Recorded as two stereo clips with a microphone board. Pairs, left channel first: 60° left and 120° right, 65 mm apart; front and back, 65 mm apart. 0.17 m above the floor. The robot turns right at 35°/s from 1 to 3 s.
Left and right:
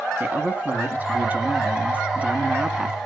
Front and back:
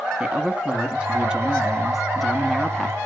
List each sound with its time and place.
0.2 s a man speaking: 130° right, 1.5 m; by 3.0 s 60° right, 1.5 m